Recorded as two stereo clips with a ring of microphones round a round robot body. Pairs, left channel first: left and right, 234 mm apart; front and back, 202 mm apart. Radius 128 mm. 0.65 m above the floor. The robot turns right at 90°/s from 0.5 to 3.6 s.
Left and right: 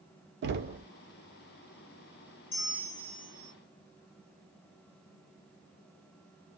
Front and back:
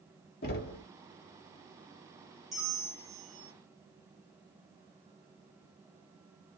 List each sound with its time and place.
0.4 s knocking: 45° right, 0.6 m; by 0.8 s 15° right, 0.6 m
2.5 s a bell: 90° left, 1.4 m; by 3.5 s straight behind, 1.4 m